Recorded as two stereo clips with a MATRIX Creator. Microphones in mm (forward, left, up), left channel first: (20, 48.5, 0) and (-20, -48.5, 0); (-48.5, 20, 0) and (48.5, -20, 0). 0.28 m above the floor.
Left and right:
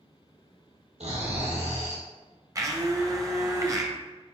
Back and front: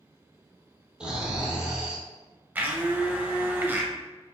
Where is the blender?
80° right, 0.6 m.